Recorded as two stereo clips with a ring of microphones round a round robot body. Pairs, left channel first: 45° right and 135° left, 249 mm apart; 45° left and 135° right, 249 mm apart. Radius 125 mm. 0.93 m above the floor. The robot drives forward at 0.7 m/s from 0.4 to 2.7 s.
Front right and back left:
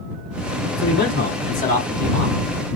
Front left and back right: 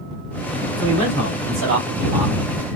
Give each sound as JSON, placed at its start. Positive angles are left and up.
{"t": 0.8, "sound": "a man speaking", "azimuth_deg": -95, "distance_m": 5.0}